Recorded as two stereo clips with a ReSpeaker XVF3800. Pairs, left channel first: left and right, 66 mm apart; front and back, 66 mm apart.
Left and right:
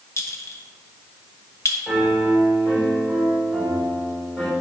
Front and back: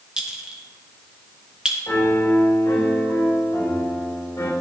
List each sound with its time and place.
0.2 s a clink: 105° left, 1.2 m
1.9 s a piano: 5° right, 3.5 m